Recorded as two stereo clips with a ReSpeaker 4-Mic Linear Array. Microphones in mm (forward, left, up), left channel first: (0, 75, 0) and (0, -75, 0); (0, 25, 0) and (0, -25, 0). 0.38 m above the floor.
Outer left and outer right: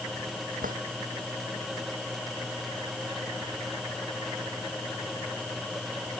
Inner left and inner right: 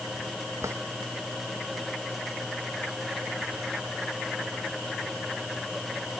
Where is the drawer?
65° right (ahead or behind).